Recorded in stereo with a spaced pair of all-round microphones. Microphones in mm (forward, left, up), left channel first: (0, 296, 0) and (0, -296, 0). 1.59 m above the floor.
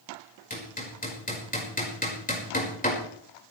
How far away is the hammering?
About 5 m.